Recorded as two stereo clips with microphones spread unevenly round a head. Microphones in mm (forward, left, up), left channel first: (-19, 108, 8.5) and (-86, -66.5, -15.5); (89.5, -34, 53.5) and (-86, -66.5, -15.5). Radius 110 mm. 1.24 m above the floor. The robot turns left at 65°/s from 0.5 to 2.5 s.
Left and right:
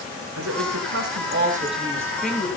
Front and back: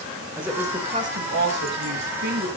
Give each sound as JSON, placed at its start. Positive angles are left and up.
{"t": 0.4, "sound": "a woman speaking", "azimuth_deg": -90, "distance_m": 5.0}